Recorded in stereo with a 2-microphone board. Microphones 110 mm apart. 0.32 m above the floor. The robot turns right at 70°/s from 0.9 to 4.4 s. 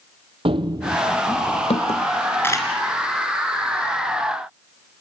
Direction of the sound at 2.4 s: 20° left (ahead or behind).